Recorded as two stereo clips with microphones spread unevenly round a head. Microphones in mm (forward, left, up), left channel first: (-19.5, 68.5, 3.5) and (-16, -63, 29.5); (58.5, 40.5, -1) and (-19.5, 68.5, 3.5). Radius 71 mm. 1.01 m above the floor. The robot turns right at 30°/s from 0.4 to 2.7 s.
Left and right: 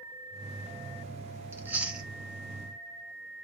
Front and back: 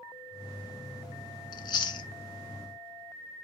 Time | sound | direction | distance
1.5 | chewing | 30° right | 0.6 m